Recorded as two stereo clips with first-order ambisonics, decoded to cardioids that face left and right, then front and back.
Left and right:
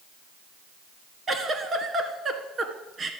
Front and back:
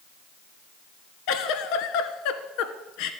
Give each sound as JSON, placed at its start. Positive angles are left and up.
{"t": 1.3, "sound": "a giggle", "azimuth_deg": -20, "distance_m": 1.3}